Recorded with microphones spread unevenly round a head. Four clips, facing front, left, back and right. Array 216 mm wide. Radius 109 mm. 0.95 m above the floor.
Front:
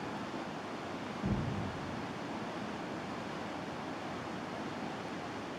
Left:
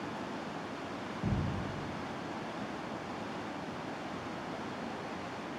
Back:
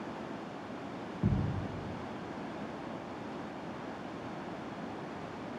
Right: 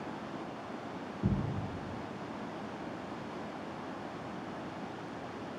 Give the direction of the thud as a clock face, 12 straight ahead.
5 o'clock.